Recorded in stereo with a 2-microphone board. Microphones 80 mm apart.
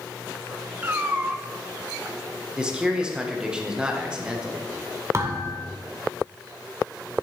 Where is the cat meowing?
25° right (ahead or behind), 0.7 m.